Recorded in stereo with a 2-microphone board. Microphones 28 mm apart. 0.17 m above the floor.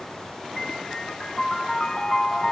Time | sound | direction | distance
0.6 | a piano | 25° left (ahead or behind) | 0.8 m